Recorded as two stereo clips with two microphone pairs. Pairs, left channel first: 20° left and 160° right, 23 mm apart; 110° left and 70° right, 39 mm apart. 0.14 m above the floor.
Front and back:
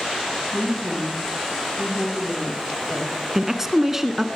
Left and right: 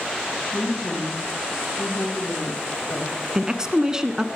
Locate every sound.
0.5 s a woman speaking: 100° left, 5 m
3.4 s a woman speaking: 110° right, 1.1 m